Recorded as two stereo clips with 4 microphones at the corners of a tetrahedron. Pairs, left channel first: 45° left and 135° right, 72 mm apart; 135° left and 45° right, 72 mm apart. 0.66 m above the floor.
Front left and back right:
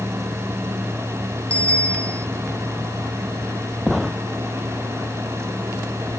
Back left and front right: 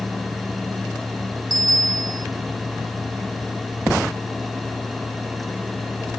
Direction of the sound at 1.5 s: 25° right.